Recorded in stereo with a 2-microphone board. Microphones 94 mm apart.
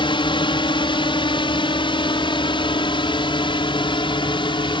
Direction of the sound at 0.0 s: 65° left (ahead or behind).